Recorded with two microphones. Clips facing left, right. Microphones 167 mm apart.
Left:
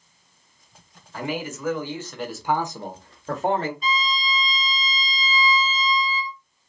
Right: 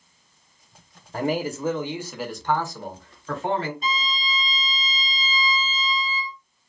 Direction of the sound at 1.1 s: 45° right (ahead or behind).